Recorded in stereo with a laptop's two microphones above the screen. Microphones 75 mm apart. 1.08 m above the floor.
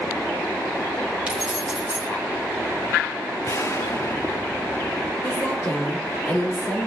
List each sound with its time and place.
1.3 s keys jangling: 15° right (ahead or behind), 1.8 m
3.4 s an explosion: 45° left (ahead or behind), 1.2 m
5.2 s a woman speaking: 25° left (ahead or behind), 3.5 m